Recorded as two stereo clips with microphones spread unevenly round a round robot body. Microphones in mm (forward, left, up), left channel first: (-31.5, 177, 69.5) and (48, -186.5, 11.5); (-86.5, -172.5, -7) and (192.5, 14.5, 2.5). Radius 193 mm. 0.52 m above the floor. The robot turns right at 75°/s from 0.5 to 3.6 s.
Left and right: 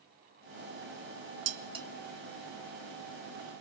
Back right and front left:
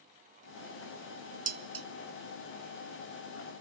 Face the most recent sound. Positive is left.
turn(degrees=130)